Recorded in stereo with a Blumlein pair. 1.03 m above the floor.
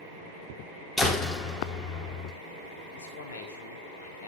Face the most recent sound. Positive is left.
turn(degrees=65)